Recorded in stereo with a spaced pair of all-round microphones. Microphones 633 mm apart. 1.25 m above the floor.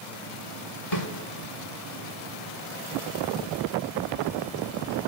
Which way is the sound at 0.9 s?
80° left.